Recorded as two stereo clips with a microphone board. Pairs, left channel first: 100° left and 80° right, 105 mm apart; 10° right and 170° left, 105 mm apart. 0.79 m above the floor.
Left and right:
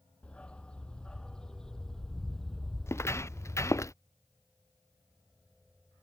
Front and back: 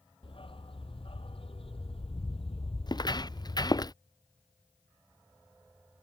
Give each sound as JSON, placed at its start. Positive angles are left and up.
{"t": 0.2, "sound": "a dog barking", "azimuth_deg": 25}
{"t": 2.9, "sound": "footsteps", "azimuth_deg": 35}